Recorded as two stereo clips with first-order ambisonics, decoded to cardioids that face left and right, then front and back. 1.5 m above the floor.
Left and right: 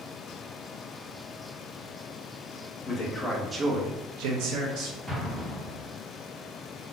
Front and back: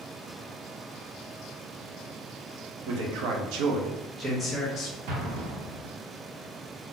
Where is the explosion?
170° right, 0.8 m.